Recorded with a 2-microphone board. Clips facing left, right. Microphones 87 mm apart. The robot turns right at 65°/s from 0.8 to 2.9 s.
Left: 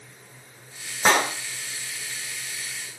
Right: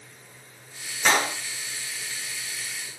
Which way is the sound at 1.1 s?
35° left (ahead or behind).